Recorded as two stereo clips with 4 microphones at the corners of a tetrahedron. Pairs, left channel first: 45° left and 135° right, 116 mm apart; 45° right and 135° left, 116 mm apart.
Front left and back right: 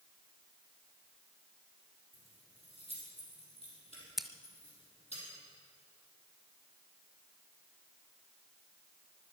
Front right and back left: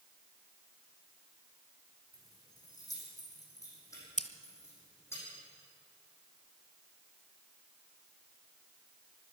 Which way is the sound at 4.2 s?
45° right.